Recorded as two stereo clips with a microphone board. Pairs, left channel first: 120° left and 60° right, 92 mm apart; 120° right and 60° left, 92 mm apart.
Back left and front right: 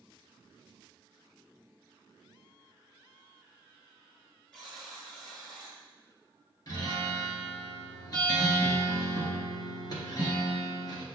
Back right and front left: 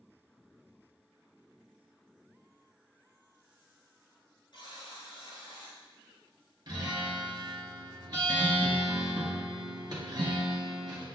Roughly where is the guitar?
Left.